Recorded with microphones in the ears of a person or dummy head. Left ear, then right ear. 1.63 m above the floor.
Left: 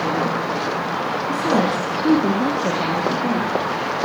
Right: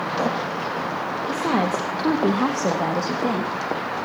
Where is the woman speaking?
25° right (ahead or behind), 1.8 m; by 3.5 s 75° right (ahead or behind), 3 m.